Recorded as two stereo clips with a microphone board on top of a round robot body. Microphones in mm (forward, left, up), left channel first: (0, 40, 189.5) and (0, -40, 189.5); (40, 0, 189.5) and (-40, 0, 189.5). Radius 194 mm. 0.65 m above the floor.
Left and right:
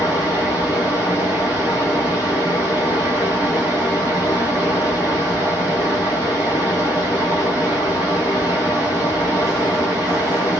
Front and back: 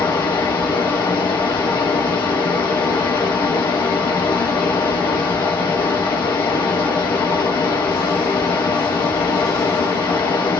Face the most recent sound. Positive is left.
turn(degrees=-30)